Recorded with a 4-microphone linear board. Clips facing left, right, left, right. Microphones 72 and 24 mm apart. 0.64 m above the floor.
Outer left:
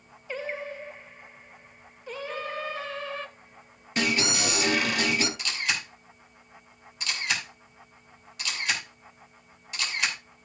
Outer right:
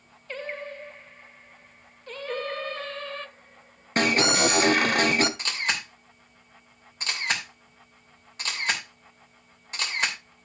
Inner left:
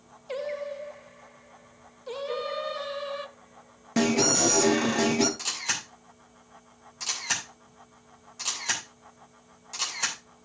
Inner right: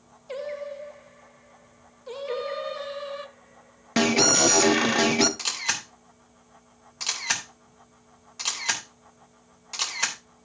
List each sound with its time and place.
0.3 s singing: 10° left (ahead or behind), 0.5 m
2.3 s singing: 60° right (ahead or behind), 1.9 m
4.0 s an alarm: 45° right (ahead or behind), 1.1 m
5.4 s a camera shutter: 40° right (ahead or behind), 3 m